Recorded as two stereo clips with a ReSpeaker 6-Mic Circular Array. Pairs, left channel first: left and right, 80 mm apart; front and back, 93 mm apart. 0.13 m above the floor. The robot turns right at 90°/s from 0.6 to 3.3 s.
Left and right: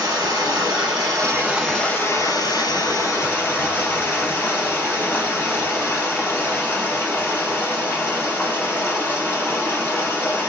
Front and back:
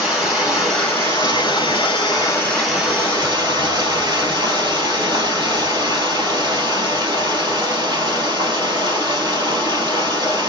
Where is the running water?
95° right, 3 m; by 10.5 s 145° left, 3 m.